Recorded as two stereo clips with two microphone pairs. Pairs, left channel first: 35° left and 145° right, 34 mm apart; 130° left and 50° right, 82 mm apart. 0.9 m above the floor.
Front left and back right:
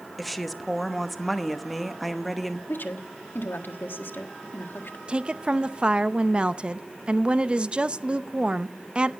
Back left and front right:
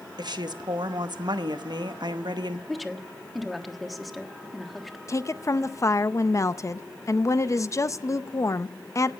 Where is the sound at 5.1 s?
170° left, 0.5 m.